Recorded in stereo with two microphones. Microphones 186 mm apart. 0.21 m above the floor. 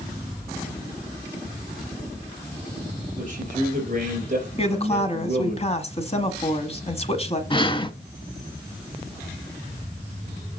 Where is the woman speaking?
35° left (ahead or behind), 1.4 m.